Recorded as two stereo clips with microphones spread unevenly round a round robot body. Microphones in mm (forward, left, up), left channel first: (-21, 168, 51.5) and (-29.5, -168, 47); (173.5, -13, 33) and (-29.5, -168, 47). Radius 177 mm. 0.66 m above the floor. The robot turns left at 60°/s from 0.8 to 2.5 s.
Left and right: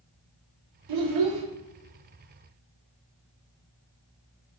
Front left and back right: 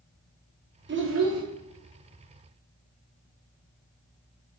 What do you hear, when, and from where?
0.9 s a child speaking: 95° right, 0.9 m; by 1.4 s 130° right, 0.9 m